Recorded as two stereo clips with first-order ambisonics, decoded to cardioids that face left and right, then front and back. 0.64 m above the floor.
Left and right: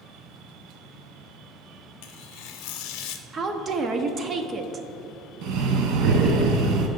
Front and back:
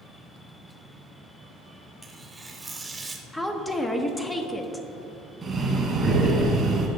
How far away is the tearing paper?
About 0.6 m.